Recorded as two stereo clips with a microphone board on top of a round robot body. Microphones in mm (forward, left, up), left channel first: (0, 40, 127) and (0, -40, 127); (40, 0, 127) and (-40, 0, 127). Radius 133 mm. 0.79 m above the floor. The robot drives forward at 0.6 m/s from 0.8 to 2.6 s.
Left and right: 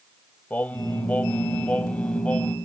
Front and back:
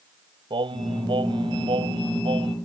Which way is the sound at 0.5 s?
160° left.